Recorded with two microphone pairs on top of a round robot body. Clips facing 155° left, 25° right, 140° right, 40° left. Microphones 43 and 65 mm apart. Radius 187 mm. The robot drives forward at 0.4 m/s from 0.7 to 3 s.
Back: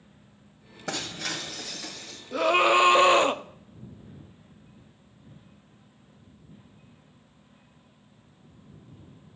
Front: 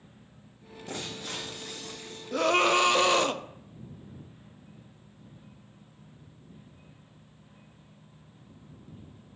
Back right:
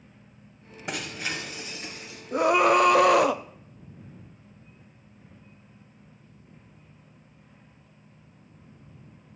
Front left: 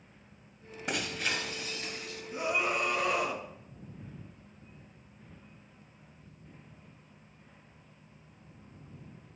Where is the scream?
120° right, 0.7 m; by 3.4 s 140° right, 0.9 m.